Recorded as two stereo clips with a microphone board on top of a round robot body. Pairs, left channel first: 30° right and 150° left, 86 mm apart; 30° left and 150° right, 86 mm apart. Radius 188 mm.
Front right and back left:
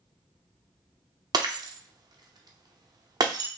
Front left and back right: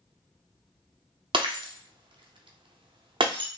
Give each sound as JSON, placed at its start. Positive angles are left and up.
{"t": 1.3, "sound": "breaking glass", "azimuth_deg": -170, "distance_m": 0.9}